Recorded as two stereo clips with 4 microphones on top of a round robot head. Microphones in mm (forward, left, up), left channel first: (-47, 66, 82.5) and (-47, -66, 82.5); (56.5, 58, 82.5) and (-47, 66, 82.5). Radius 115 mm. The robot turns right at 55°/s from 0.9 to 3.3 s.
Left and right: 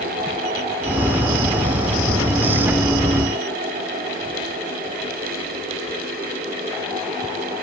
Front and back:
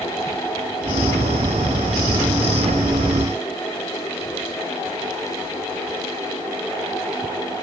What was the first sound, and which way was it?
Only background noise.